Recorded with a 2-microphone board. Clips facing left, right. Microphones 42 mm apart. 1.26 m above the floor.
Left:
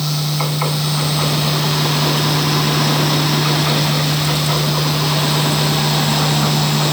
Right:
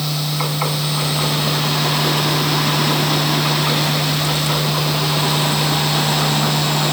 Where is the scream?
No scream in this recording.